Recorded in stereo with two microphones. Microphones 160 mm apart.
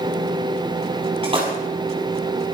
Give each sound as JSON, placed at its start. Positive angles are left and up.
{"t": 1.2, "sound": "a splash", "side_deg": -35, "distance_m": 7.0}